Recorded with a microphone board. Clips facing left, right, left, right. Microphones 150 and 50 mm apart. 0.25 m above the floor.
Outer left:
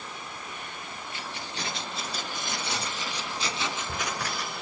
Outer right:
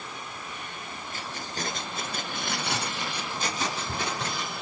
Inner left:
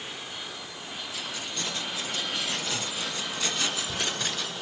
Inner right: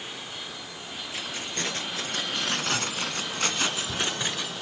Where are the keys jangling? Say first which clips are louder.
Outer right 2 dB, inner right 3 dB; 40° right (ahead or behind), 3.5 m; by 4.5 s 15° right (ahead or behind), 2.5 m.